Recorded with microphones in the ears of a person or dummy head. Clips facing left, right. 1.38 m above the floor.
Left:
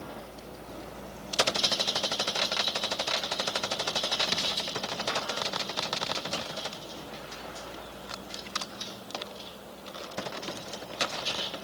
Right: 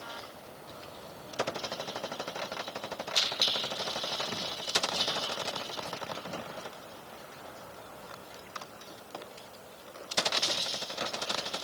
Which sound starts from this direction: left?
A vehicle, at 0.0 s.